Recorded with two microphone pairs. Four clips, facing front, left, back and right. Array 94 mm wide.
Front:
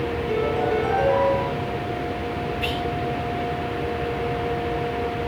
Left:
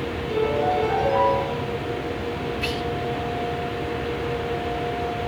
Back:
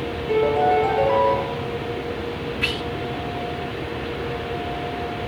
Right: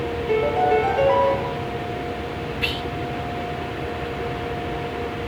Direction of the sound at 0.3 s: 120° right.